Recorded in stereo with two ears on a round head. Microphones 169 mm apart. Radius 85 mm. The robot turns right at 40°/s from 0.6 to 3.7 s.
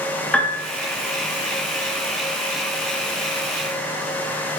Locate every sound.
0.3 s a piano: 5° left (ahead or behind), 1.8 m